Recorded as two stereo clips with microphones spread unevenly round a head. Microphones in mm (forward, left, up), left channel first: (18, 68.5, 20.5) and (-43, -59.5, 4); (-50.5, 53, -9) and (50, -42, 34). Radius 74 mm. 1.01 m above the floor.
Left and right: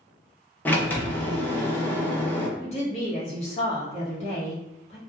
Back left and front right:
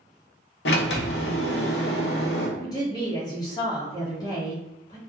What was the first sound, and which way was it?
A sliding door, 135° left.